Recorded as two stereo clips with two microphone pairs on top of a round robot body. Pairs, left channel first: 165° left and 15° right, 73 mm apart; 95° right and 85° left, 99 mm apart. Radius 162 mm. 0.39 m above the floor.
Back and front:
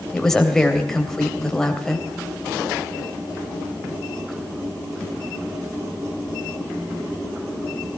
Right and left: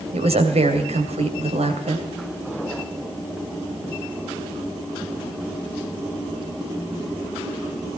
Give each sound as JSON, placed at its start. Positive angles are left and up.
{"t": 0.1, "sound": "a woman speaking", "azimuth_deg": 85, "distance_m": 2.5}